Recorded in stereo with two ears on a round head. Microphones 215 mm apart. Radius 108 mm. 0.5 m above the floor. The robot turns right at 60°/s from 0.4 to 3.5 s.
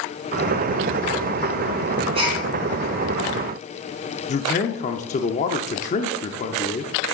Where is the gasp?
25° right (ahead or behind), 3.5 m; by 2.4 s 10° right (ahead or behind), 3.5 m.